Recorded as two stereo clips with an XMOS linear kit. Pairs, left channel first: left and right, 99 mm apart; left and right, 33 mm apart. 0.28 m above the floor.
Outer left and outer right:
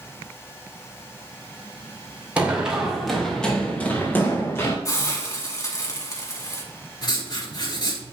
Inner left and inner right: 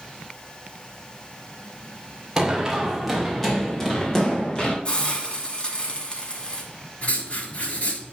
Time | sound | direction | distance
2.4 | running footsteps | 15° right (ahead or behind) | 4 m
4.8 | a hiss | 35° left (ahead or behind) | 2.5 m
7.0 | writing | 50° left (ahead or behind) | 4.5 m